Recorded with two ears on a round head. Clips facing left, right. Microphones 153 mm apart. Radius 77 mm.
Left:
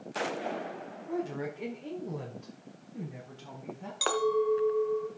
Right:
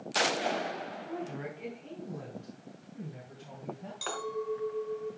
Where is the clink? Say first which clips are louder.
Left 9 dB; 65° left (ahead or behind), 1.2 m.